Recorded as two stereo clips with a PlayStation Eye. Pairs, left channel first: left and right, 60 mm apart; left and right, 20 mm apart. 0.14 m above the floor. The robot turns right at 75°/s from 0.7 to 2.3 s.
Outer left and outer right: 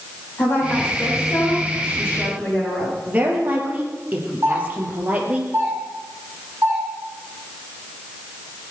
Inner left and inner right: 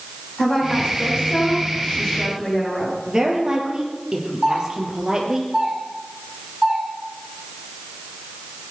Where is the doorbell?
45° right (ahead or behind), 7.5 m.